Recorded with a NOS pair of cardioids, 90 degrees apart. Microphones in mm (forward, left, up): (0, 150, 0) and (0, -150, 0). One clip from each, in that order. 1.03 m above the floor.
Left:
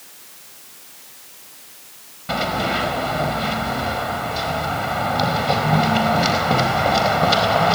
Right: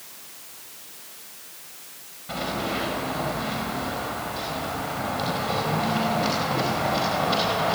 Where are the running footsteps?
65° left, 5 m.